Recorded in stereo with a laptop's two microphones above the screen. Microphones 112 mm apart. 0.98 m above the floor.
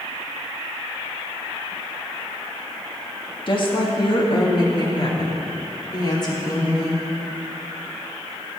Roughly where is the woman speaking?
Left.